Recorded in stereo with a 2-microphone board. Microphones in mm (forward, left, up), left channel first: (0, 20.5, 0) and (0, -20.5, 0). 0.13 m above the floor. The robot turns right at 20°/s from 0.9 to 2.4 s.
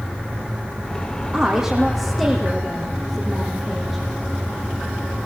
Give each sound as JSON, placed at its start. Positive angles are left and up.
{"t": 1.3, "sound": "a woman speaking", "side_deg": -30, "distance_m": 6.0}